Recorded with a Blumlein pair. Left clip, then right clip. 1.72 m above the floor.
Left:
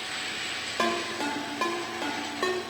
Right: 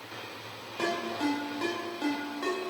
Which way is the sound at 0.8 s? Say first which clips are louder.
Left 2 dB; 70° left.